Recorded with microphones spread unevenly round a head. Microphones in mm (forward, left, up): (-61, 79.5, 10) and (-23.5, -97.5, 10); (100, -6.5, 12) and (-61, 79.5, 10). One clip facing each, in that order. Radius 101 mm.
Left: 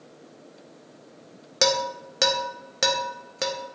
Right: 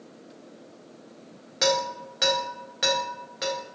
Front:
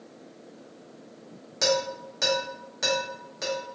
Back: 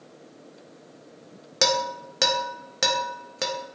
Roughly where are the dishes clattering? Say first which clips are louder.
Left 1 dB, even; behind left.